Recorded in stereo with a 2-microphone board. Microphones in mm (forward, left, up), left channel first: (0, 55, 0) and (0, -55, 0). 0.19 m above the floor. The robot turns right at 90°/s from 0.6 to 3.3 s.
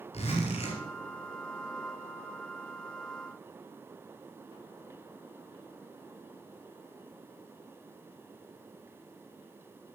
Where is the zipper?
70° left (ahead or behind), 2.5 m.